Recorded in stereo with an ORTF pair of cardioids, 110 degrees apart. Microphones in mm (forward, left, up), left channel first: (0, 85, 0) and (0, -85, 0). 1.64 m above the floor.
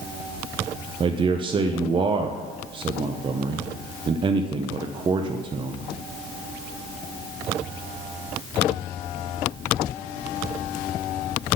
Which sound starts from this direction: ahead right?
A man speaking, at 1.0 s.